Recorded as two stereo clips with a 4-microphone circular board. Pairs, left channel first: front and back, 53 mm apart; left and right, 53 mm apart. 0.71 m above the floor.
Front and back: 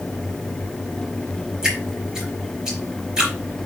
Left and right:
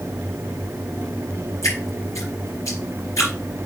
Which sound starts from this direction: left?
Dripping, at 1.6 s.